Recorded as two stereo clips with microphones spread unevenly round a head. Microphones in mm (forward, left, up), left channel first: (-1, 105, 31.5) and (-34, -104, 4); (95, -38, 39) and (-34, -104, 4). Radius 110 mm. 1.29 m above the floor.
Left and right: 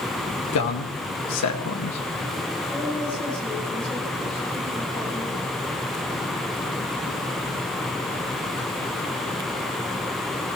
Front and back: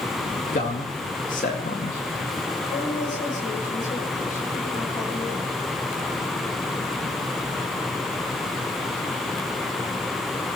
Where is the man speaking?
85° left, 2.5 m.